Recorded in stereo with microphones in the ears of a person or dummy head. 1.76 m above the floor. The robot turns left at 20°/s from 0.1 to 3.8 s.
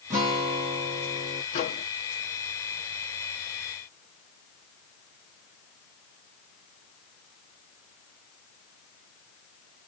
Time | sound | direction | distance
0.1 | a guitar | 15° right (ahead or behind) | 0.8 m
1.5 | a microwave | 40° left (ahead or behind) | 0.9 m